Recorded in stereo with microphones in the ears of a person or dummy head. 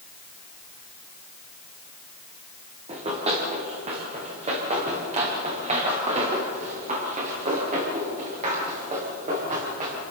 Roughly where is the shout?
No shout in this recording.